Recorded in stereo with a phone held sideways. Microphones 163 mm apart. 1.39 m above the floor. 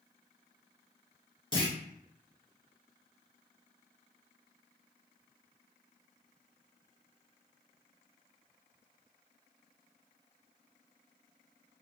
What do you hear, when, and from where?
1.5 s a clunk: 30° left (ahead or behind), 0.9 m